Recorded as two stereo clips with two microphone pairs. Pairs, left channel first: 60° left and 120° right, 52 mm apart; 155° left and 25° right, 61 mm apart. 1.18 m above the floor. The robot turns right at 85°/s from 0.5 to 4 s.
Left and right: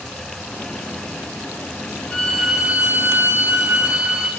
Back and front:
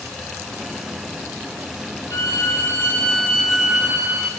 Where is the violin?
130° left, 2 m; by 4.3 s 65° right, 2 m.